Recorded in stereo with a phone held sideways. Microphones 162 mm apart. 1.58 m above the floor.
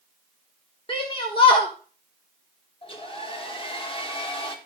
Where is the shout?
35° left (ahead or behind), 1.4 m.